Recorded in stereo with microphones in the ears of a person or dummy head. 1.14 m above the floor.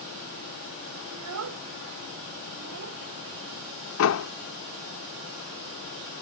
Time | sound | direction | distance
1.1 | a child speaking | 90° right | ?
4.0 | a door slam | 85° left | ?